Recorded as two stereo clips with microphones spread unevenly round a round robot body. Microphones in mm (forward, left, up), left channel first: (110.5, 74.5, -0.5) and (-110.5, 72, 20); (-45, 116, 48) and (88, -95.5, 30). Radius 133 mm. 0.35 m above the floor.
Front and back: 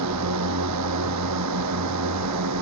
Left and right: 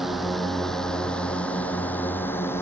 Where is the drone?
145° right; by 2.6 s 155° right.